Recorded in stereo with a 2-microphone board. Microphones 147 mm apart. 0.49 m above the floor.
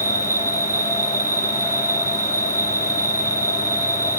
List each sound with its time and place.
0.0 s an insect: 65° right (ahead or behind), 1.8 m